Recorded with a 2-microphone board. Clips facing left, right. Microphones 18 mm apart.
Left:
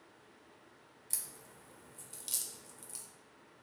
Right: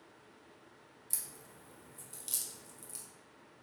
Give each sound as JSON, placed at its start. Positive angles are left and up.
{"t": 1.1, "sound": "a crack", "side_deg": 15, "distance_m": 1.1}